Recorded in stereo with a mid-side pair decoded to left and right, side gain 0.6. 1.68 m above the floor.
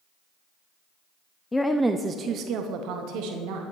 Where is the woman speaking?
15° left, 0.6 m; by 3.6 s 80° right, 1.6 m.